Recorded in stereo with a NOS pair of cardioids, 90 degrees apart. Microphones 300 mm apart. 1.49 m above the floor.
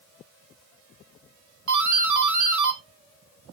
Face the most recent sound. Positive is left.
turn(degrees=-65)